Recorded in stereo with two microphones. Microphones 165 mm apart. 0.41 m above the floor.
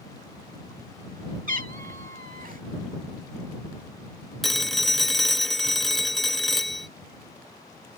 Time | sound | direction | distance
1.5 | a cat meowing | 55° right (ahead or behind) | ?
4.4 | a phone ringing | centre (ahead or behind) | ?